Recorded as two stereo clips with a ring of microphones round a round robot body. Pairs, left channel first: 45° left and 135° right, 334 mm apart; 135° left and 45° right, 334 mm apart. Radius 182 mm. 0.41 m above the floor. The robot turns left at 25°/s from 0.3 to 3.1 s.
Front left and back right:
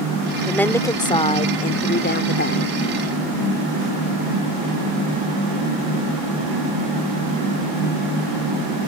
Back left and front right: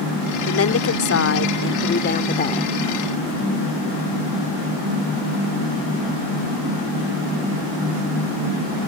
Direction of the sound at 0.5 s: 130° left.